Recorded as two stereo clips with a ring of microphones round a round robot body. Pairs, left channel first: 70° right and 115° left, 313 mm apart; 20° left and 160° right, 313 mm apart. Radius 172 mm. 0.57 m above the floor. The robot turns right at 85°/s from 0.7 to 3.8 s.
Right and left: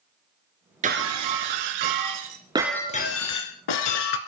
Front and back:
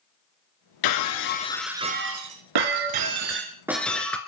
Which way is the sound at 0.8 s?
45° left.